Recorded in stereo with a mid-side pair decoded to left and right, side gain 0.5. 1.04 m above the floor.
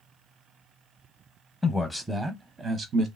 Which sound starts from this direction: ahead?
A man speaking, at 1.6 s.